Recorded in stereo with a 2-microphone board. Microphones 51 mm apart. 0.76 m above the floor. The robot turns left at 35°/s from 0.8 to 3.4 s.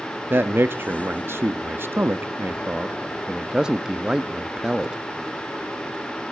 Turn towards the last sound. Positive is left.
turn(degrees=-160)